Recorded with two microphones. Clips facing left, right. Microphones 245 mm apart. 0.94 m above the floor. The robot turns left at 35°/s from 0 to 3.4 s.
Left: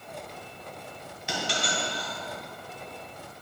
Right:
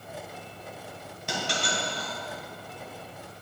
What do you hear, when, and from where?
1.3 s a dropped coin: 50° right (ahead or behind), 2 m; by 2.1 s 75° right (ahead or behind), 2 m